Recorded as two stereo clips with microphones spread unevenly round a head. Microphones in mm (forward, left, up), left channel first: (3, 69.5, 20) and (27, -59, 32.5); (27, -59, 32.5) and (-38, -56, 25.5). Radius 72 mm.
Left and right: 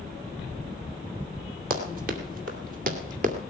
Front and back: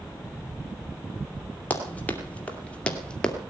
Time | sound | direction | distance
1.7 | running footsteps | 65° right | 3 m